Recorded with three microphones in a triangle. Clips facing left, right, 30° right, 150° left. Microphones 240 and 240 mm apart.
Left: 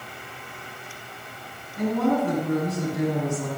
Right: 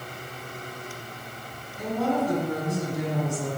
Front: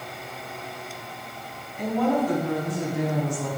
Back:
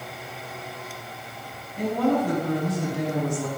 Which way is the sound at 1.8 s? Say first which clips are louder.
Left 3 dB, back 1 dB; 105° left.